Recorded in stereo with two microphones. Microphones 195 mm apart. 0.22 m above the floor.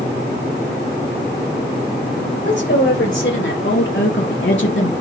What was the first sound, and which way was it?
A woman speaking, 70° left (ahead or behind).